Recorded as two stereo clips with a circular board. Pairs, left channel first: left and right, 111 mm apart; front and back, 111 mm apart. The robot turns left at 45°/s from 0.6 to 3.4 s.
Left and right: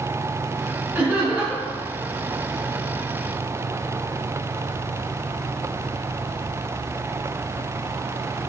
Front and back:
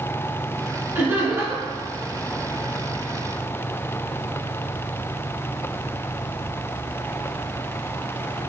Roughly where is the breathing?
I don't hear breathing.